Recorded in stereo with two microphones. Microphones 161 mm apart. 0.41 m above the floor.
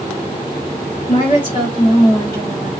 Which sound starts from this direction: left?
A woman speaking, at 1.1 s.